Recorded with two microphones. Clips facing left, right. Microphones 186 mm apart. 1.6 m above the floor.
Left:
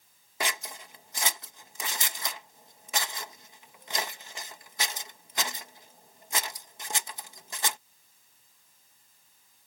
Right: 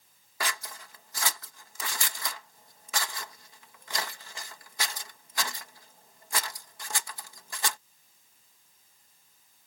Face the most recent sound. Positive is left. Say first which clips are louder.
# left 2 dB
turn(degrees=20)  # may be behind; listen again after turning